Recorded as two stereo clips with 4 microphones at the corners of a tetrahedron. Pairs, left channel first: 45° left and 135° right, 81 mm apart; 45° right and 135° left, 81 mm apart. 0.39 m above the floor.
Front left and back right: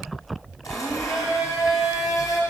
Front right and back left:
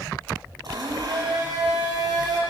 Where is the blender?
95° left, 5.5 m.